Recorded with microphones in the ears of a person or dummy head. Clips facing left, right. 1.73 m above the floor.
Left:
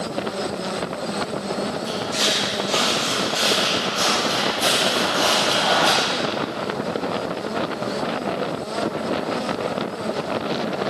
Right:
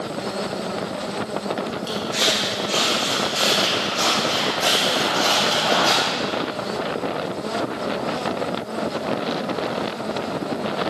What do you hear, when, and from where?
1.9 s footsteps: 10° left (ahead or behind), 5.5 m; by 6.0 s 30° left (ahead or behind), 3.5 m